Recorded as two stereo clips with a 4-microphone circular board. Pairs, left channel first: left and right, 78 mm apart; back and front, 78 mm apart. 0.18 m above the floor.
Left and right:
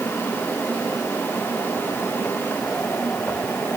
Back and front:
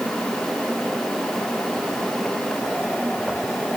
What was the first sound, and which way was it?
Only background noise.